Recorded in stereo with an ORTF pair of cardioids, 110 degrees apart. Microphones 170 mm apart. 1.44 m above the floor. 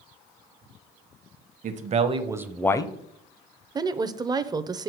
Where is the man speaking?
50° right, 1.1 m; by 2.9 s 30° left, 0.7 m.